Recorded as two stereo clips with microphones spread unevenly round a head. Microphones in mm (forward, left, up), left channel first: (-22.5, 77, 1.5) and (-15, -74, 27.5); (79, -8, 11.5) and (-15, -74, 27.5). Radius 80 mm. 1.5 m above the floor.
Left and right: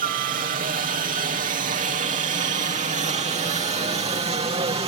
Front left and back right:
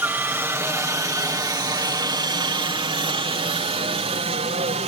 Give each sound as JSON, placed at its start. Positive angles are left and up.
{"t": 0.0, "sound": "a helicopter", "azimuth_deg": -75}